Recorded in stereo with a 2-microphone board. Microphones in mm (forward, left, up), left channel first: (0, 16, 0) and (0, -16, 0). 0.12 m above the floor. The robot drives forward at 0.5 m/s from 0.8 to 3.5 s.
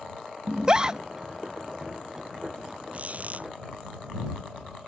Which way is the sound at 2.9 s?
45° right (ahead or behind).